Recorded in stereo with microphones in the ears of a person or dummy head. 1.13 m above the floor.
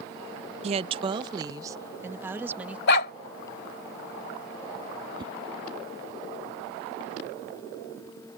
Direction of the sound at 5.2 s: 25° right (ahead or behind).